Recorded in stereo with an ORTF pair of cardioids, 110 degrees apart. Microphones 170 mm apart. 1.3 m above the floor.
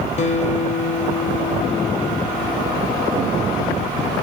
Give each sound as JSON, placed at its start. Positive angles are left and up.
{"t": 0.2, "sound": "a guitar", "azimuth_deg": 45, "distance_m": 0.8}